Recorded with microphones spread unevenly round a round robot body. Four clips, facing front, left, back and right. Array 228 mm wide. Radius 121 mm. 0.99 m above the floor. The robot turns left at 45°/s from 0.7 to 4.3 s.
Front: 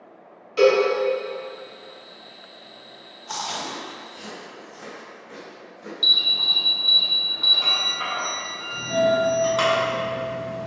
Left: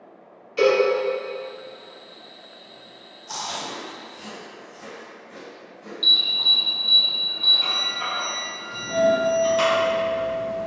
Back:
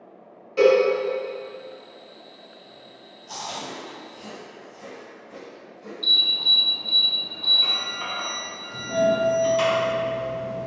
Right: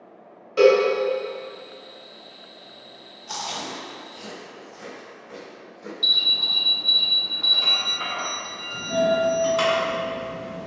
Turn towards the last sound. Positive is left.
turn(degrees=5)